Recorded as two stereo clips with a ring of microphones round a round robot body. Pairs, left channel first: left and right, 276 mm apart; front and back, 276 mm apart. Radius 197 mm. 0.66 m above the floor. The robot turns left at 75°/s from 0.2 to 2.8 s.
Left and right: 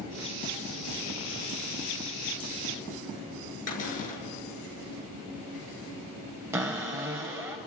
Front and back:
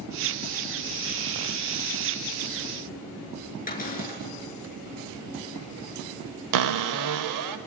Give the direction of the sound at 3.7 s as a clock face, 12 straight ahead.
10 o'clock.